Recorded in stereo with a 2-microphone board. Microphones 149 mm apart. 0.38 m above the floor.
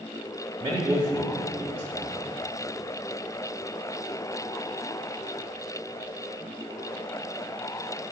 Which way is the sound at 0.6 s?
30° right (ahead or behind).